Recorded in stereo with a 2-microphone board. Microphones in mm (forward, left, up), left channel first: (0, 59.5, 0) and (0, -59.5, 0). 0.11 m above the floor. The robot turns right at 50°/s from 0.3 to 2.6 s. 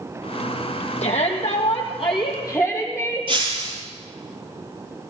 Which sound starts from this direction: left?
A shout, at 1.0 s.